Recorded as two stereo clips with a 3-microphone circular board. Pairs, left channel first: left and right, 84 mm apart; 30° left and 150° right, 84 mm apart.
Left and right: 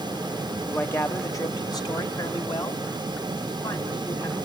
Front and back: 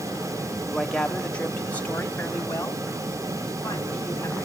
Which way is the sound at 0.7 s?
120° left.